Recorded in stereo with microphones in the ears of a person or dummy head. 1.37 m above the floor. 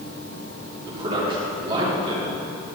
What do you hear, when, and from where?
0.9 s a man speaking: 30° right (ahead or behind), 3.5 m